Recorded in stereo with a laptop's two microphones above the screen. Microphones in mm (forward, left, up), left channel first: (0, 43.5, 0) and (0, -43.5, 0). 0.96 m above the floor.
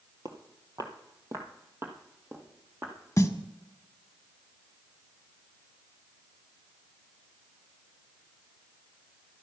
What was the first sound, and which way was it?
Footsteps, 50° right (ahead or behind).